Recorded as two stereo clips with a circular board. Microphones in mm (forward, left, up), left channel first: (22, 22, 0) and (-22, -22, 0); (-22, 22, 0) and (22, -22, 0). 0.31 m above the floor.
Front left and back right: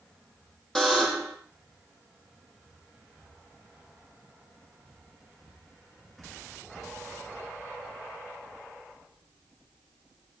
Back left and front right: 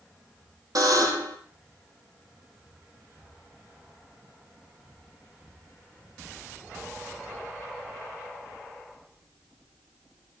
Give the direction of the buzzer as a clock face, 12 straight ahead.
1 o'clock.